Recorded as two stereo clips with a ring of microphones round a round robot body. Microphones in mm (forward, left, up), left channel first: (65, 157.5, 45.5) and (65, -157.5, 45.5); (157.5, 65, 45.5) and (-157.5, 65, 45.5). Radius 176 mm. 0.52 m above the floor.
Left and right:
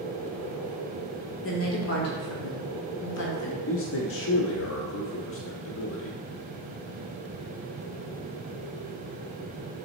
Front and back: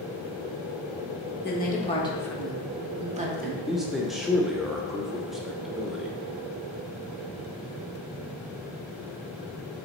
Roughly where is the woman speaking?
Ahead left.